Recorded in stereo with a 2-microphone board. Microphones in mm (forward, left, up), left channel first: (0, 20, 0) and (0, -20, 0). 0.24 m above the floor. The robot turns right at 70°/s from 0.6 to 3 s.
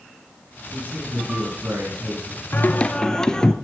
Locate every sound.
0.7 s a man speaking: 150° right, 6.5 m; by 2.4 s 30° right, 6.5 m
2.5 s singing: 130° left, 0.7 m; by 3.5 s 160° left, 0.7 m